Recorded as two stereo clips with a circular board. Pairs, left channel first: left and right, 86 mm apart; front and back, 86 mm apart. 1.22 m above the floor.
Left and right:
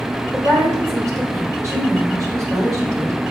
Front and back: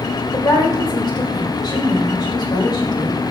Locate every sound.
0.3 s a woman speaking: 35° right, 4 m